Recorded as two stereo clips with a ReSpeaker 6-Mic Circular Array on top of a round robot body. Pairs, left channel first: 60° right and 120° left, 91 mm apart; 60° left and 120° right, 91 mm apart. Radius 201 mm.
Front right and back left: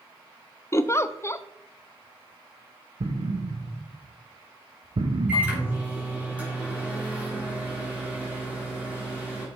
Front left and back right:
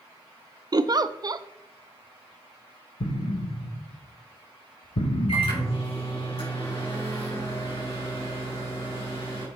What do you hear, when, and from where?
0.7 s a giggle: 105° right, 0.6 m
3.0 s an explosion: 85° left, 0.7 m
5.3 s a microwave: 45° left, 3.5 m